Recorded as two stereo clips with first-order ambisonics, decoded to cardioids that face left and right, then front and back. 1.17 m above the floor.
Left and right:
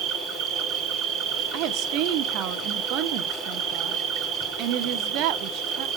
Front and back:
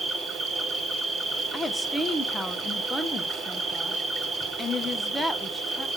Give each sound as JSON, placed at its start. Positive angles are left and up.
{"t": 0.0, "sound": "an insect", "azimuth_deg": -110, "distance_m": 1.2}
{"t": 1.5, "sound": "a woman speaking", "azimuth_deg": -85, "distance_m": 0.5}